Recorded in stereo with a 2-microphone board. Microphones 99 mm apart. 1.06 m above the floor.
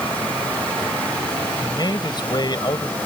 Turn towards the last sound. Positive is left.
turn(degrees=45)  # may be behind; listen again after turning